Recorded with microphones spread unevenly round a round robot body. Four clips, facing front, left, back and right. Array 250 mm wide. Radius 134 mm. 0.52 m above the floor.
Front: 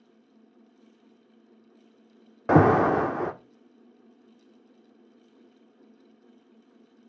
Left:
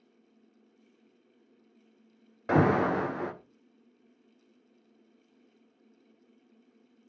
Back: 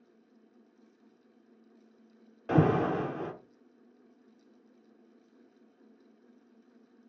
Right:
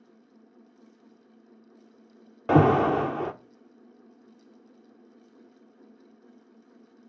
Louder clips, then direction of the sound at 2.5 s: Right 5 dB, front 7 dB; 45° right.